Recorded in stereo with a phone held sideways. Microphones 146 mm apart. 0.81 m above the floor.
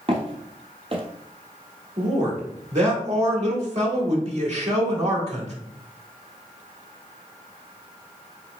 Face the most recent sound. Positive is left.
turn(degrees=-50)  # may be behind; listen again after turning